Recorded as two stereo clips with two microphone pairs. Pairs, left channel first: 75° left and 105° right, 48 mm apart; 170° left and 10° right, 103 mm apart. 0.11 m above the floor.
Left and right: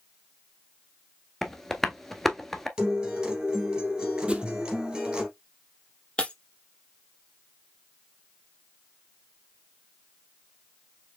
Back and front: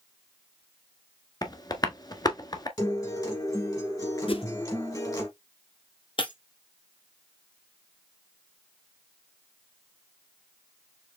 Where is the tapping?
155° left, 0.7 m.